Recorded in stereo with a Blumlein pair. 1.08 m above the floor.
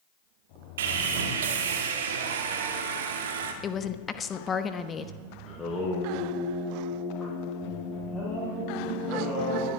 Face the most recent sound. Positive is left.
turn(degrees=10)